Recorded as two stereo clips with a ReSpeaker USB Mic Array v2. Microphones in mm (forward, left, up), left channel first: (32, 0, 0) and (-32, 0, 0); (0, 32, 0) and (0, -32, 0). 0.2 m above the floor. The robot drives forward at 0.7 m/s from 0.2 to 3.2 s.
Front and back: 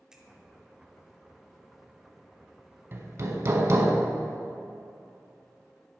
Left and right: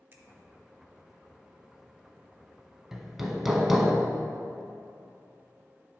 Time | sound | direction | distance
0.1 | a finger snap | 105° right | 1.0 m
2.9 | hammering | 170° right | 0.7 m